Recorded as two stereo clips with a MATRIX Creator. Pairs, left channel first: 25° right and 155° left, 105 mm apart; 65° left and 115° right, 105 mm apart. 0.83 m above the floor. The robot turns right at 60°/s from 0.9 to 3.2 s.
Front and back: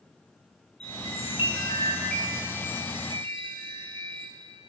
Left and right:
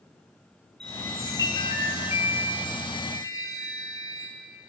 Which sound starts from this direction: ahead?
A chime, at 0.8 s.